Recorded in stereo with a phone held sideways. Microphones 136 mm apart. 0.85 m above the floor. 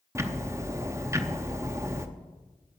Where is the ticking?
20° right (ahead or behind), 0.6 m.